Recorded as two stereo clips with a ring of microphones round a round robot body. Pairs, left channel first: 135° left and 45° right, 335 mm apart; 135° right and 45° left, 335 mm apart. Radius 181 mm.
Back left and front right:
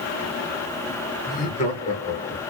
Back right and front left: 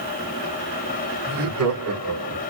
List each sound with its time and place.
1.3 s laughter: 70° left, 2 m; by 2.4 s 75° left, 1.2 m